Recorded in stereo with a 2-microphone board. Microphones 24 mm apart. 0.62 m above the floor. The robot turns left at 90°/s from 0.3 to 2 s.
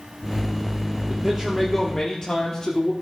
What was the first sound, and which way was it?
A man speaking, 135° right.